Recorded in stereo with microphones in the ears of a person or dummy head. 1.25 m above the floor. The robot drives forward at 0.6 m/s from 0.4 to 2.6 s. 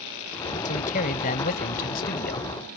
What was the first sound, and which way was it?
A man speaking, 45° left (ahead or behind).